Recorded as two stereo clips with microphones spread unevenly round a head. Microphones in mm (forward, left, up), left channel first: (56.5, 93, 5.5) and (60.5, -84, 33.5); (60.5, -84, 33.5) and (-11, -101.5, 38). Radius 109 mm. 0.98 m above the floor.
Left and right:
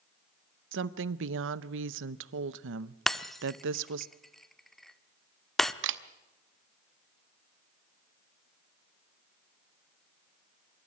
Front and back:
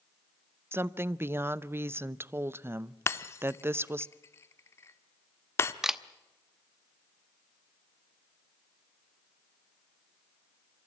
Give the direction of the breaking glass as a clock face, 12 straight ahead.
12 o'clock.